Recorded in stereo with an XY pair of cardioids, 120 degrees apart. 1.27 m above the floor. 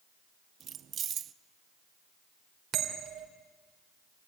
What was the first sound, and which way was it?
Keys jangling, 50° right.